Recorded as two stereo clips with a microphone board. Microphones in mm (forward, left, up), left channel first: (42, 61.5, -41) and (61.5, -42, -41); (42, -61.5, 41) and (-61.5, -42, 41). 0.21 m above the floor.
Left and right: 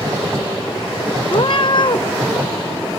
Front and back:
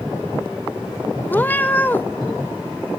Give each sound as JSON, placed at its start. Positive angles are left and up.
{"t": 1.3, "sound": "a cat meowing", "azimuth_deg": 60, "distance_m": 1.0}